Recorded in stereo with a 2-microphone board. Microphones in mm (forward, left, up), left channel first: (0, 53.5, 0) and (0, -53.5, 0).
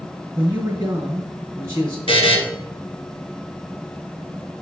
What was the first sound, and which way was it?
A man speaking, 25° right (ahead or behind).